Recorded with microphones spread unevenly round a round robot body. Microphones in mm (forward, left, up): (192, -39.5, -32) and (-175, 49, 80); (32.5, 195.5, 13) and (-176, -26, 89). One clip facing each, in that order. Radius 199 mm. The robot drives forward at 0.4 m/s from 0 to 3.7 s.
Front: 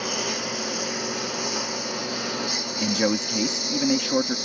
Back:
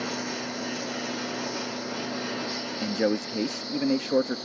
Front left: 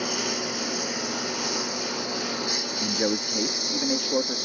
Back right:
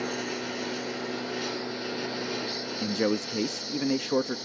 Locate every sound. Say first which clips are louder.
0.0 s a lawn mower: front 2 dB, front left 2 dB; straight ahead; by 4.5 s 15° left
2.8 s a man speaking: front 2 dB, even; 45° right; by 4.4 s 55° right